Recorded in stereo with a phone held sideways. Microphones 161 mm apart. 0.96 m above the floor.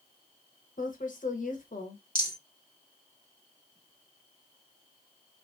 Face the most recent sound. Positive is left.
turn(degrees=25)  # may be behind; listen again after turning